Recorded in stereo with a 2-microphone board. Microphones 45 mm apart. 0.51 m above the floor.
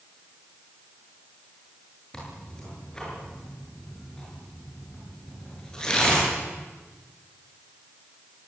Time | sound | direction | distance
2.1 | tearing paper | 20° left (ahead or behind) | 8.5 m